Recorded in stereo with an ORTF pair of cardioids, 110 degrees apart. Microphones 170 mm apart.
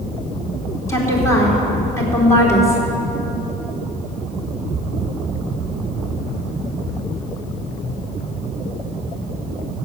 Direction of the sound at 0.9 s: 15° left.